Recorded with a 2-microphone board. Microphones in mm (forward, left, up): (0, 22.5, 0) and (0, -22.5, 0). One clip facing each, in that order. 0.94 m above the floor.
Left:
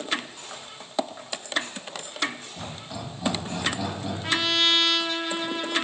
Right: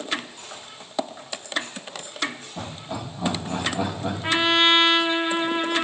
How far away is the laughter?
About 7 m.